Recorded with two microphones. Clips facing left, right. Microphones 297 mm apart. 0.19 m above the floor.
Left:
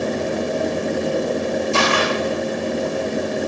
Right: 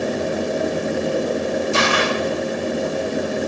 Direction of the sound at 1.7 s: 15° right (ahead or behind).